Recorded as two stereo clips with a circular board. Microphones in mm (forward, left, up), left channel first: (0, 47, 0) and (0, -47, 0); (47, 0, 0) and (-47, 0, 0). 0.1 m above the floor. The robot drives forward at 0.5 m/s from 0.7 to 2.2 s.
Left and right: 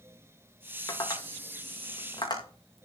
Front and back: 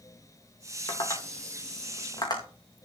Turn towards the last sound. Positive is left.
turn(degrees=45)